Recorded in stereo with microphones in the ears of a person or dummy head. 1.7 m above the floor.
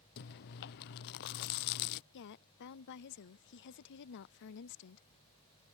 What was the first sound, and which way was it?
Chewing, 55° left (ahead or behind).